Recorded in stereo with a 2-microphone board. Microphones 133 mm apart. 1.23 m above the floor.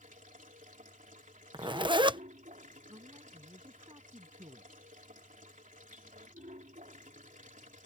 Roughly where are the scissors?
No scissors in this recording.